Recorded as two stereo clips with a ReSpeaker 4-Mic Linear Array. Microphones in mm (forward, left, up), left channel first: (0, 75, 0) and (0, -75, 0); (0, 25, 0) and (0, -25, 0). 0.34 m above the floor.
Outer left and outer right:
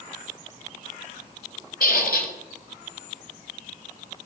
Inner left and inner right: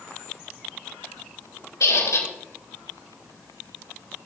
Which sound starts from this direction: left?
A squeak, at 1.8 s.